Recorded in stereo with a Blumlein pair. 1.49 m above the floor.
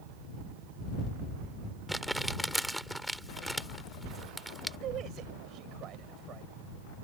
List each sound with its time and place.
1.9 s crumpling: straight ahead
4.8 s a man speaking: 30° right